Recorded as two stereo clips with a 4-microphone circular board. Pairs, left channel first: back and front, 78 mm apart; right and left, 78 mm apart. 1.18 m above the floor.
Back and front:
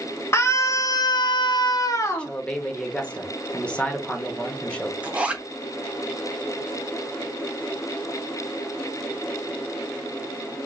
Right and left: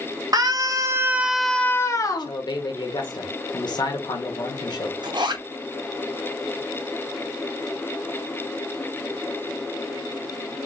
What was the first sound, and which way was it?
A scream, 125° left.